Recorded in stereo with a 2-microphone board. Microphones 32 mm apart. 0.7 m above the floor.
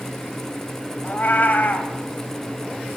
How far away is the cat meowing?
About 2.0 m.